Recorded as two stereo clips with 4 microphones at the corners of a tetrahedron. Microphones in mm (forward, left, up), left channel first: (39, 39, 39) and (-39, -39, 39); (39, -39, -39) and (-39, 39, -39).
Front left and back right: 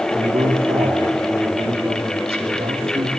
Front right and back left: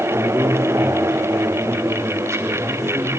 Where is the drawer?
No drawer in this recording.